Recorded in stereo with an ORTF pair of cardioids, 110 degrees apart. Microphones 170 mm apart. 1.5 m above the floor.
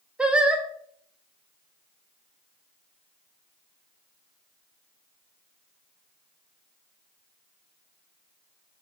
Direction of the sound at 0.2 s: 5° right.